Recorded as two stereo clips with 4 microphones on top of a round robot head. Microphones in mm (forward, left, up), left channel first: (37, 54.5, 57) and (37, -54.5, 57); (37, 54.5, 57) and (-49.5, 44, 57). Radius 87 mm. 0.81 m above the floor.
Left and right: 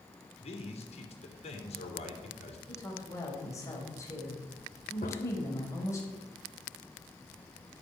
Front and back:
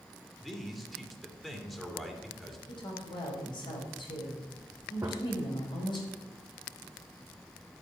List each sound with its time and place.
0.4 s a man speaking: 95° left, 3 m
2.7 s a woman speaking: 30° left, 4.5 m
5.0 s a gunshot: 125° left, 1.1 m